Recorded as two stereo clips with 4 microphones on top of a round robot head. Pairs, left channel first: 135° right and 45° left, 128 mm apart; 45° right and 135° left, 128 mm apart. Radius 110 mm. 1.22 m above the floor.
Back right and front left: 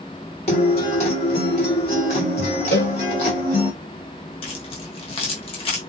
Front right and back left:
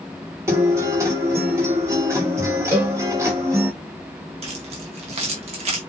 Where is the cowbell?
160° right, 1.8 m.